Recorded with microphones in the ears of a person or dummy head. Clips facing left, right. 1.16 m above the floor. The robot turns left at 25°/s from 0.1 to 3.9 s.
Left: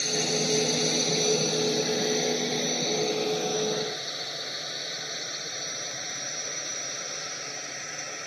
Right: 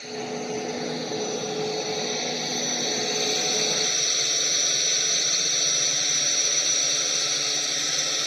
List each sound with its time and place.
0.0 s a drone: 65° left (ahead or behind); by 8.3 s 55° right (ahead or behind)